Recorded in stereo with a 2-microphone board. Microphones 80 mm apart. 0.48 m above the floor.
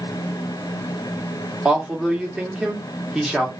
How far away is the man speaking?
About 0.9 m.